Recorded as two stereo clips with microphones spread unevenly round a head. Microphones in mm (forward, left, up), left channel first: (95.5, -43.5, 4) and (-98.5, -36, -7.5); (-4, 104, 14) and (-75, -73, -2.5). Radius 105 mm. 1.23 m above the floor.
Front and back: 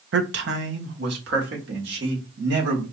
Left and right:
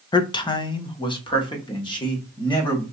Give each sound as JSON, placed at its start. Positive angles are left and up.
{"t": 0.1, "sound": "a man speaking", "azimuth_deg": 135, "distance_m": 0.6}